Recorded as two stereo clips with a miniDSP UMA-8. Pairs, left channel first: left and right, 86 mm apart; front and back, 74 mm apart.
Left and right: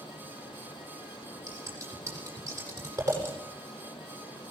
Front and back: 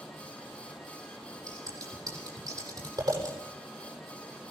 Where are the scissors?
150° right, 8 m.